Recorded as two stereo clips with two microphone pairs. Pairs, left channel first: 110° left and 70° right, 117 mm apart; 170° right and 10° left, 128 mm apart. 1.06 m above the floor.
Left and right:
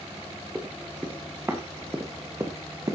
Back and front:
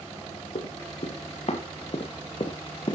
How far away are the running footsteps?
About 3.5 m.